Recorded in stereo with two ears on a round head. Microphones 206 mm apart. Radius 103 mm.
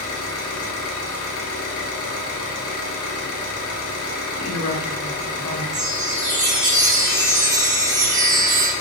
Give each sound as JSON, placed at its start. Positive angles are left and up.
{"t": 0.0, "sound": "an engine running", "side_deg": 70, "distance_m": 1.0}
{"t": 4.4, "sound": "a woman speaking", "side_deg": 80, "distance_m": 1.1}
{"t": 5.7, "sound": "a chime", "side_deg": -35, "distance_m": 1.1}